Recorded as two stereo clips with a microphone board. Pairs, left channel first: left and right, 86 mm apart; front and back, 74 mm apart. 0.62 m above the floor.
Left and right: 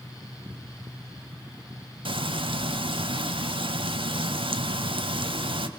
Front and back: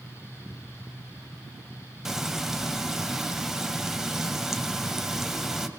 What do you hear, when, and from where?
2.0 s frying: 95° right, 1.1 m